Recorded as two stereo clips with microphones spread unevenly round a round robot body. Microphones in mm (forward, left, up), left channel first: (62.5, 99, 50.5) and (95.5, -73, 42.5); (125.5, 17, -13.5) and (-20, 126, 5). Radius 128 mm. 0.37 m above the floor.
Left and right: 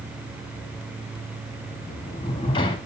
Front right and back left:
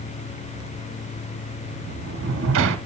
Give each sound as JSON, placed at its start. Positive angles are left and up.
{"t": 1.6, "sound": "a sliding door", "azimuth_deg": 170, "distance_m": 0.7}